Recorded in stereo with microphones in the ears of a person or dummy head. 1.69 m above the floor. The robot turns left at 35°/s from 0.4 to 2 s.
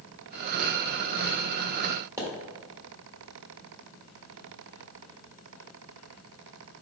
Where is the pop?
15° right (ahead or behind), 1.3 m.